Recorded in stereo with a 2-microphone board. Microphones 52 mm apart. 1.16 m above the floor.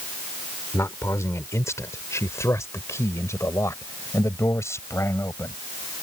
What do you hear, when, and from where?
0.7 s a man speaking: 70° left (ahead or behind); by 5.5 s 65° left (ahead or behind)